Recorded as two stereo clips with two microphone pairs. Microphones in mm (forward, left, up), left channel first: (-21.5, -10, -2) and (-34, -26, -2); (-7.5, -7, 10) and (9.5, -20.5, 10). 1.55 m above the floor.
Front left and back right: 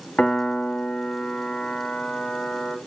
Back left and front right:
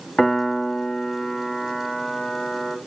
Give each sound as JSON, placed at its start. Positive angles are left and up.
{"t": 0.2, "sound": "a piano", "azimuth_deg": 80, "distance_m": 0.9}